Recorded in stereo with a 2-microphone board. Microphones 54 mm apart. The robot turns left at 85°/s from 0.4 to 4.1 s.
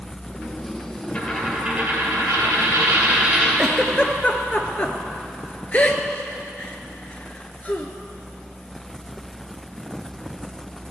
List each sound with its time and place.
1.1 s a dropped coin: 15° left, 2.5 m; by 3.5 s straight behind, 2.5 m
3.6 s a giggle: 10° right (ahead or behind), 0.6 m; by 7.9 s 35° left (ahead or behind), 0.6 m